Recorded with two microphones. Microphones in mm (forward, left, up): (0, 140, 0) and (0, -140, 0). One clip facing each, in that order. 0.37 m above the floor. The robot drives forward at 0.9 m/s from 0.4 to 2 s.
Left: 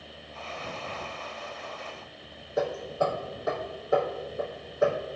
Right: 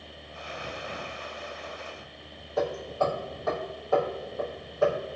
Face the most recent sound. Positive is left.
turn(degrees=20)  # may be behind; listen again after turning